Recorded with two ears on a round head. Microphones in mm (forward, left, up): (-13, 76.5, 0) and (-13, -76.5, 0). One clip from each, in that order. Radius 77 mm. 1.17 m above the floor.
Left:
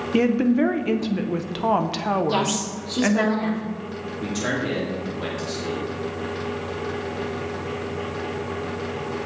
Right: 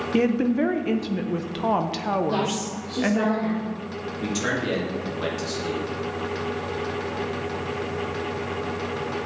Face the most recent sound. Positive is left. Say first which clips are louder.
# even
turn(degrees=-20)  # may be behind; listen again after turning